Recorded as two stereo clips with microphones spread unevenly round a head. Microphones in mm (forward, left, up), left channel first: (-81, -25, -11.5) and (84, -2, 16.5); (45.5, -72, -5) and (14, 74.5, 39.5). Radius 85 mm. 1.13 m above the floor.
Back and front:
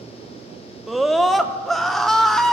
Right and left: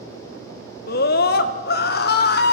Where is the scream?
85° right, 2.5 m.